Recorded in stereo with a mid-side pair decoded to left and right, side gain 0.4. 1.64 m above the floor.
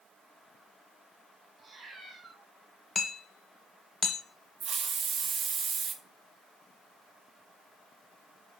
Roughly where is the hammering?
Ahead left.